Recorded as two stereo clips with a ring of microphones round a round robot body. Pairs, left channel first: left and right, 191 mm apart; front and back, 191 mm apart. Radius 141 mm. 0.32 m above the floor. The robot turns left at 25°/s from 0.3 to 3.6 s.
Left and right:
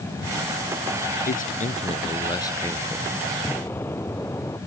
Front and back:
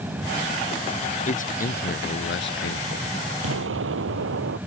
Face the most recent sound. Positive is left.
turn(degrees=175)